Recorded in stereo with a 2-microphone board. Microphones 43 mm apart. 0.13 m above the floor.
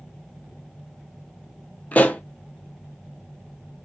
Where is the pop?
40° left (ahead or behind), 0.6 m.